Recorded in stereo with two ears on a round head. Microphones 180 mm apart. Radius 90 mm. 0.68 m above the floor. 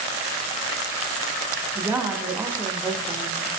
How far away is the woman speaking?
About 0.5 m.